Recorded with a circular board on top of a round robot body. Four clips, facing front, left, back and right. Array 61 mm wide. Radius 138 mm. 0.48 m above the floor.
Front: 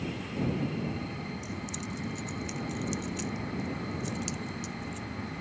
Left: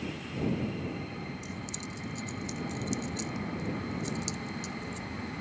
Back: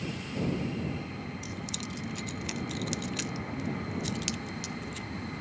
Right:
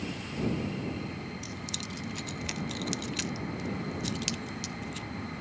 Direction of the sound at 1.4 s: 125° right.